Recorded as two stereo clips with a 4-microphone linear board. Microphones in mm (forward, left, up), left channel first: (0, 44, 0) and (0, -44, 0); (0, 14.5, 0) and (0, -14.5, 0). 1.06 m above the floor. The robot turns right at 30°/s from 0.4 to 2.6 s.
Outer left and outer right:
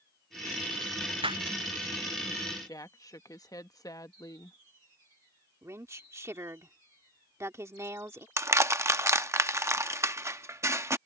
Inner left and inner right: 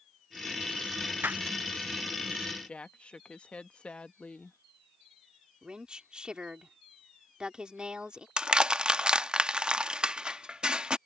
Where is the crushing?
35° right (ahead or behind).